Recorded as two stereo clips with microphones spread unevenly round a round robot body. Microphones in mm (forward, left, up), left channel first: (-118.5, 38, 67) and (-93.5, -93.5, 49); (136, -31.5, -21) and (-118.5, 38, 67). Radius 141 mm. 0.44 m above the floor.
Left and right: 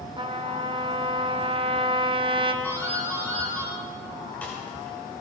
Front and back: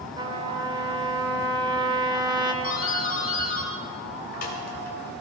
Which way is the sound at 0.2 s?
110° right.